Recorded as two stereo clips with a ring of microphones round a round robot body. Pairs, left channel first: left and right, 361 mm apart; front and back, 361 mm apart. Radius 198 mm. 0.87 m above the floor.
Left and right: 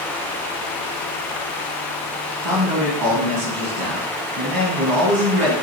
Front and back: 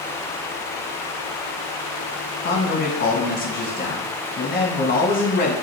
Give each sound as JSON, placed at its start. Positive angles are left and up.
{"t": 2.4, "sound": "a man speaking", "azimuth_deg": -60, "distance_m": 1.5}